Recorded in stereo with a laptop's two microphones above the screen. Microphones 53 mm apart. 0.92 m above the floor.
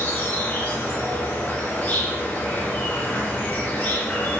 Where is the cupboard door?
No cupboard door in this recording.